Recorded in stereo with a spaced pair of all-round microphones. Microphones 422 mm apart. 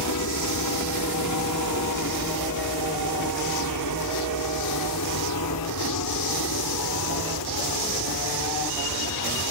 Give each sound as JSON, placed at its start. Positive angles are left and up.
{"t": 0.0, "sound": "a helicopter", "side_deg": 50}